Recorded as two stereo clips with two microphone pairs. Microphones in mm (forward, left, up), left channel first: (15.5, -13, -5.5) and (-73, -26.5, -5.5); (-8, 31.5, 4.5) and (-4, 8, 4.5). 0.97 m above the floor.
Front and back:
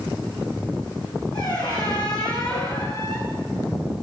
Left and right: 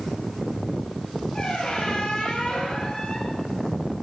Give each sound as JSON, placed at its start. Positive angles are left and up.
{"t": 1.3, "sound": "a squeak", "azimuth_deg": 45, "distance_m": 7.5}